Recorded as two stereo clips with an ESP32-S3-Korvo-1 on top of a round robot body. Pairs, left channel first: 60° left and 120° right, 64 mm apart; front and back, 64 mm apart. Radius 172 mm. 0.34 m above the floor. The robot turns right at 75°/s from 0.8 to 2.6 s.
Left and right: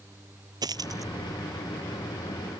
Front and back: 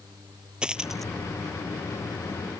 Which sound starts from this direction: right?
A dropped coin, at 0.6 s.